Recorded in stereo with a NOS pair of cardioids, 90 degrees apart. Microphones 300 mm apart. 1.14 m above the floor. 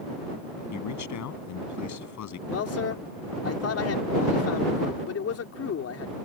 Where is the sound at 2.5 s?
55° left.